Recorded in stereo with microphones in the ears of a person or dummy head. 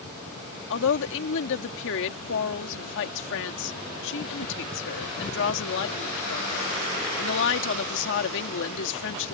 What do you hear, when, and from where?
0.7 s a woman speaking: 70° left (ahead or behind)